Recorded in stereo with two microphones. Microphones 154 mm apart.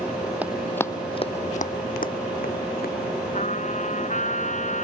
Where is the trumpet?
55° left (ahead or behind).